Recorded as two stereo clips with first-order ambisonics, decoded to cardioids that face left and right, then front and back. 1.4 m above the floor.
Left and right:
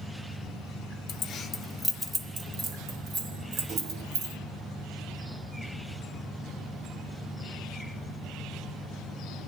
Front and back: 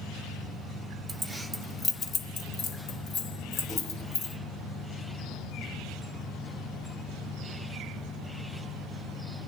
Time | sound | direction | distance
1.1 | keys jangling | 110° left | 0.6 m